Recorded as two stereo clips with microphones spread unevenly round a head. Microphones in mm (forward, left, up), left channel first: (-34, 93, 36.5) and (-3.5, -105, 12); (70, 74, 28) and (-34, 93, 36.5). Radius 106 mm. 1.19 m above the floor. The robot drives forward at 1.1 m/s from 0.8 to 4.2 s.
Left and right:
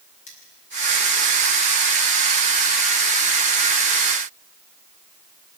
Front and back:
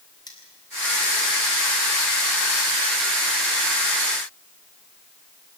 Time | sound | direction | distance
0.3 | cutlery clinking | 40° left | 7 m